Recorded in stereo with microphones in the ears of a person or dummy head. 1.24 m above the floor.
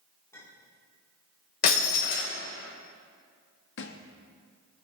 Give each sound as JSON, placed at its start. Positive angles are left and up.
{"t": 0.3, "sound": "a clink", "side_deg": 15, "distance_m": 3.0}
{"t": 1.6, "sound": "breaking glass", "side_deg": 55, "distance_m": 3.0}
{"t": 3.8, "sound": "a thud", "side_deg": 60, "distance_m": 0.9}